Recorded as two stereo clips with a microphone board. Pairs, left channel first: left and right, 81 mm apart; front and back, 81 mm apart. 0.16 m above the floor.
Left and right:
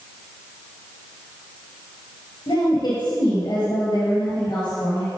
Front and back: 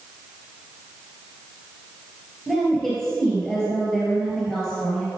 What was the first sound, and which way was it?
A woman speaking, 85° left.